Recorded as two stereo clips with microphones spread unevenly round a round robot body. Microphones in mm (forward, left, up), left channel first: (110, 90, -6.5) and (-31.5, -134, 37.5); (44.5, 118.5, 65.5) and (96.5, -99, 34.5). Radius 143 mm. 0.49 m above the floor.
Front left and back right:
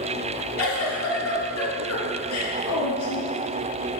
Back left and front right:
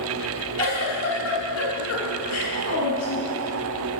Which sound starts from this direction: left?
A giggle, at 0.6 s.